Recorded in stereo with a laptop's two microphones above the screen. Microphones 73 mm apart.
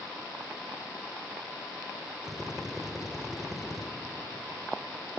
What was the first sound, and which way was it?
A drill, 5° right (ahead or behind).